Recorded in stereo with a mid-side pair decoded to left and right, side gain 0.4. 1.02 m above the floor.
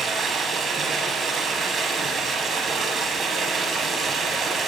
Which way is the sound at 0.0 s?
50° right.